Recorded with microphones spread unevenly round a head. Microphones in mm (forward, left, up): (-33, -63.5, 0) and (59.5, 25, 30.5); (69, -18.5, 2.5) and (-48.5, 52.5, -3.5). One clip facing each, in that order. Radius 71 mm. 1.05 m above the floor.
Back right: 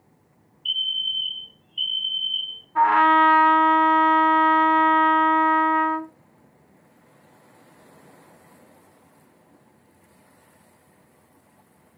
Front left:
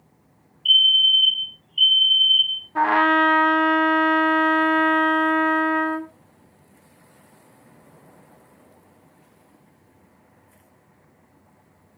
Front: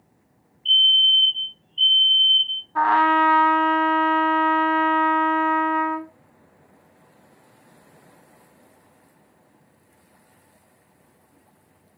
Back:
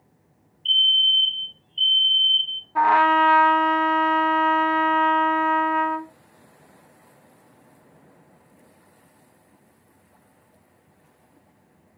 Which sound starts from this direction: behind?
A fire alarm, at 0.7 s.